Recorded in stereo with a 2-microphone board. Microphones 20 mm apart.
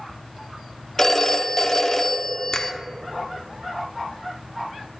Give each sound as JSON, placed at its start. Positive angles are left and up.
{"t": 1.0, "sound": "a phone ringing", "side_deg": 30, "distance_m": 0.8}
{"t": 2.5, "sound": "a finger snap", "side_deg": 50, "distance_m": 1.0}